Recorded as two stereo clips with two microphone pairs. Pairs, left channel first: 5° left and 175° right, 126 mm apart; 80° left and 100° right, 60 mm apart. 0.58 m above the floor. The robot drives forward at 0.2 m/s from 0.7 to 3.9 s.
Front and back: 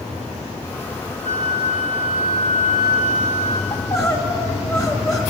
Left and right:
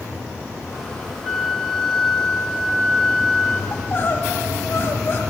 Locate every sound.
1.2 s a flute: 175° left, 0.6 m; by 3.6 s straight behind, 1.1 m
3.7 s crying: 50° left, 0.8 m